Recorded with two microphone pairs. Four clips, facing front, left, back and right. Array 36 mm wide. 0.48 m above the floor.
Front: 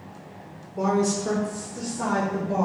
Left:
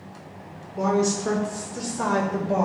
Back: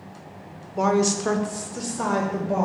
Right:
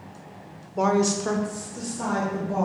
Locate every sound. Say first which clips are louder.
0.8 s a woman speaking: right 1 dB, back 2 dB; 135° right, 1.0 m; by 2.7 s 115° left, 1.8 m